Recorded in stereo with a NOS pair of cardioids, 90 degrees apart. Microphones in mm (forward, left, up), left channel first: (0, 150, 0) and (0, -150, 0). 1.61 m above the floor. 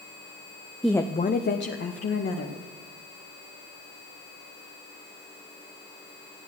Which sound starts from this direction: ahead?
A woman speaking, at 0.8 s.